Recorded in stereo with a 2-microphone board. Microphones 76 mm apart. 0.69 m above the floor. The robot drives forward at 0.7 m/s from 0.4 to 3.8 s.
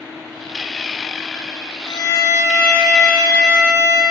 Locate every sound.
1.9 s a violin: 45° left (ahead or behind), 0.7 m; by 4.0 s 20° left (ahead or behind), 1.3 m